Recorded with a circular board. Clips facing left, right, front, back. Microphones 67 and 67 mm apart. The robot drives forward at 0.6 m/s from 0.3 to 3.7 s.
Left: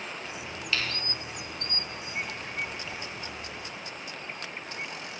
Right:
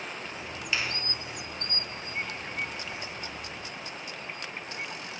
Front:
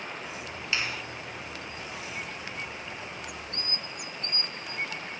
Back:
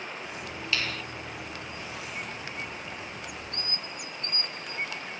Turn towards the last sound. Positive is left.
turn(degrees=-170)